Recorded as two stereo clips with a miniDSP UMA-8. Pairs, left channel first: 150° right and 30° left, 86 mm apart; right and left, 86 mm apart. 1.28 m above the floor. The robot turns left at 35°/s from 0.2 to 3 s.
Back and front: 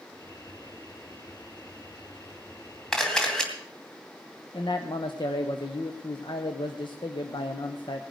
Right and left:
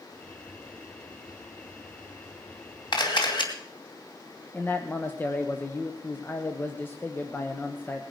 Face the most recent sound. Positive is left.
turn(degrees=-155)